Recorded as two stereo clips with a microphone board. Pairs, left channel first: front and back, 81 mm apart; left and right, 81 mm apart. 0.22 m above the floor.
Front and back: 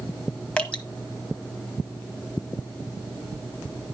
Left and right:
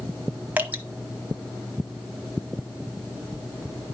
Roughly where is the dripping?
Ahead right.